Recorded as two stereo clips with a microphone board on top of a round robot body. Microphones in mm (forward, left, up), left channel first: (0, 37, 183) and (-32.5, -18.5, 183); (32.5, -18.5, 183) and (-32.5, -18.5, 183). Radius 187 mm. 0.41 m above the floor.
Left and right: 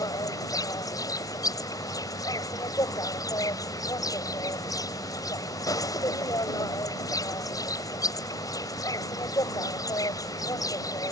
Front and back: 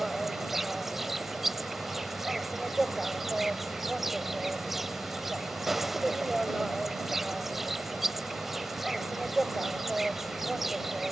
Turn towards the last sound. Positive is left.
turn(degrees=90)